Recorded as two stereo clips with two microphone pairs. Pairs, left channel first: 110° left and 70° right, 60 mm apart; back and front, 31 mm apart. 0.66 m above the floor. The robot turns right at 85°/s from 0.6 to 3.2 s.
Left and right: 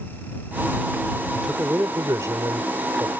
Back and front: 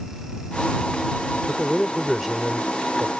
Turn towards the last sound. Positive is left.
turn(degrees=0)